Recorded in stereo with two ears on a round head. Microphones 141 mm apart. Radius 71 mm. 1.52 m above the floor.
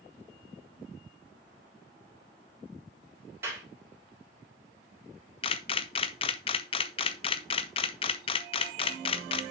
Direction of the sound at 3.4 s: 15° right (ahead or behind).